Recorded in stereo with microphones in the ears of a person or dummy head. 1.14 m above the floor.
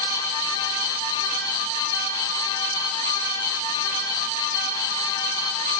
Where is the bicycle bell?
I don't hear a bicycle bell.